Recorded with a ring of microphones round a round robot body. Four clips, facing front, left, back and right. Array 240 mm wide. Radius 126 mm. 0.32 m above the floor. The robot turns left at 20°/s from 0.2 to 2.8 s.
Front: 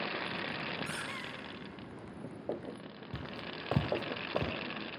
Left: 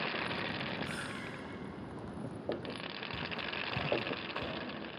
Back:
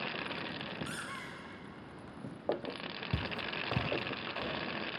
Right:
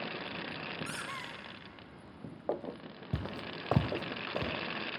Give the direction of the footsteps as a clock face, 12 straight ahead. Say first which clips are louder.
Right 3 dB, back 3 dB; 4 o'clock.